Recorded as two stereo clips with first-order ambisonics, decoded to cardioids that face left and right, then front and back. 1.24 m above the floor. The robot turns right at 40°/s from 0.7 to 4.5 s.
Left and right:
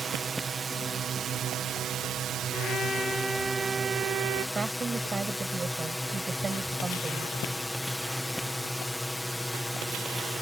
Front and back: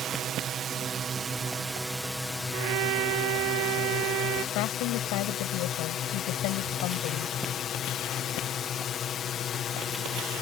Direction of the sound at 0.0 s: 145° right.